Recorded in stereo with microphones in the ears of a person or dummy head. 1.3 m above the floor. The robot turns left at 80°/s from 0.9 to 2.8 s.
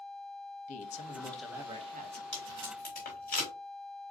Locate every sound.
0.7 s a man speaking: 40° left, 0.9 m; by 2.2 s 65° right, 0.9 m
2.3 s tape being pulled: 5° left (ahead or behind), 3.5 m; by 3.5 s 45° left (ahead or behind), 3.5 m